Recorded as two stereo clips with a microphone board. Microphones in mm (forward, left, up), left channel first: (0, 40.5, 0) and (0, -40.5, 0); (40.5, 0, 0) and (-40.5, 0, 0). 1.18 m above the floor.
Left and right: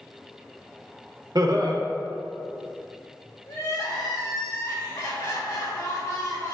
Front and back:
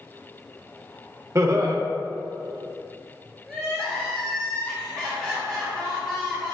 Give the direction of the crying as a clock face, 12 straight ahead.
9 o'clock.